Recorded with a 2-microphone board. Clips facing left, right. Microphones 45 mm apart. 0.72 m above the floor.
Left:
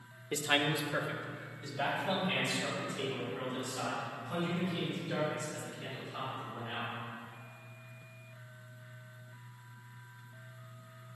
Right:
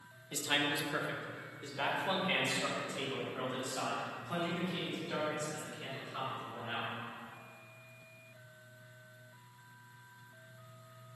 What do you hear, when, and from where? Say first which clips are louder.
0.3 s a man speaking: left 3 dB; 30° left (ahead or behind), 0.9 m; by 6.9 s 50° right (ahead or behind), 7.5 m